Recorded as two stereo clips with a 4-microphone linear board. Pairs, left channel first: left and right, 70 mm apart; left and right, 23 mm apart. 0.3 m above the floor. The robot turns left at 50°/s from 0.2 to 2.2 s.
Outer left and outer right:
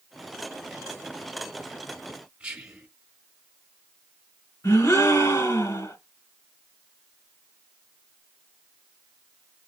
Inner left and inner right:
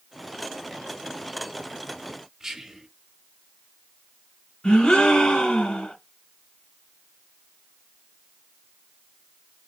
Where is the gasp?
50° left (ahead or behind), 1.9 m.